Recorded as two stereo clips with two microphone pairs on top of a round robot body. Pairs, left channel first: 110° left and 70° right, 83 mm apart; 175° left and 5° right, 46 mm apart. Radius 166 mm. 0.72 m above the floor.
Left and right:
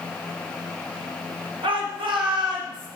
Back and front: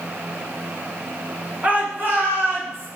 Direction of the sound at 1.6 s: 70° right.